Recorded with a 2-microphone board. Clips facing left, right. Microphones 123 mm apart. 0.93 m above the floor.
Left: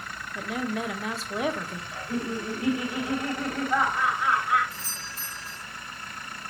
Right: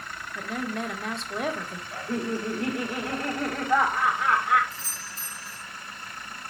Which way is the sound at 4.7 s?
60° left (ahead or behind).